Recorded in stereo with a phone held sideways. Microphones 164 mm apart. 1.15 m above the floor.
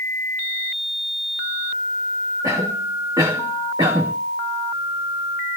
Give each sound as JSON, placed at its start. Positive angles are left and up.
{"t": 2.4, "sound": "a cough", "side_deg": -25, "distance_m": 1.6}